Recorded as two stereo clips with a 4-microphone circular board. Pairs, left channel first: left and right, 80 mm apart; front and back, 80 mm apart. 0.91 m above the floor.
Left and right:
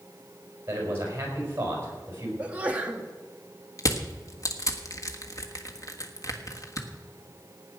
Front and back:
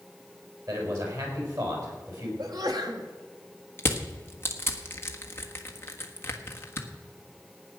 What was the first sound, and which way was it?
A man speaking, 150° right.